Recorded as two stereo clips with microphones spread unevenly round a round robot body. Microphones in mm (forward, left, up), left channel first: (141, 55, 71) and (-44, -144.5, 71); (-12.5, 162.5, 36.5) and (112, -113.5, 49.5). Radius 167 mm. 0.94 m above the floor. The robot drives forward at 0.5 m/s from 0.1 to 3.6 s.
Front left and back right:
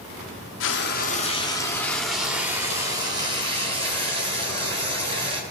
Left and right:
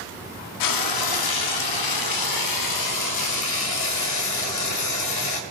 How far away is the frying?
About 0.8 m.